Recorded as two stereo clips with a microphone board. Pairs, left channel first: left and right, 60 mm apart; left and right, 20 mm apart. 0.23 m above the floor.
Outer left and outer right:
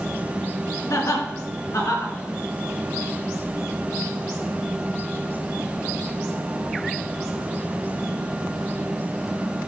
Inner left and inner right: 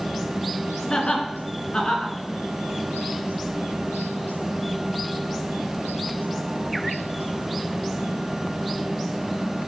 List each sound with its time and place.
0.9 s laughter: 60° left (ahead or behind), 2.5 m